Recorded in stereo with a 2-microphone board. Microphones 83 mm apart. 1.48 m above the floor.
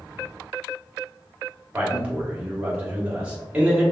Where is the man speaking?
15° right (ahead or behind), 1.3 m.